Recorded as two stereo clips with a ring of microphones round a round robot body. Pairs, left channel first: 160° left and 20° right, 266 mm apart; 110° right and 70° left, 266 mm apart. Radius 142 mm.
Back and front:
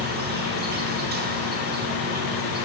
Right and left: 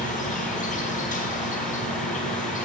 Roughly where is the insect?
Ahead right.